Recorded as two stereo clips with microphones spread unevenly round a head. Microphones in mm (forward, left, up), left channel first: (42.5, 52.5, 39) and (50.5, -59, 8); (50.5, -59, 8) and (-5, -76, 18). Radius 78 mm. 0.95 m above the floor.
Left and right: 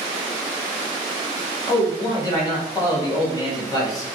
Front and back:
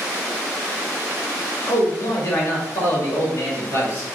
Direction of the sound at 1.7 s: 30° left.